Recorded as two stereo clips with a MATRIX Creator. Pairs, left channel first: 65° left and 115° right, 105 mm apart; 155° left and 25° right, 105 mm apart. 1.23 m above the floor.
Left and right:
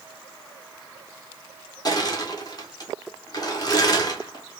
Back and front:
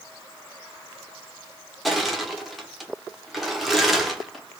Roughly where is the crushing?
Ahead left.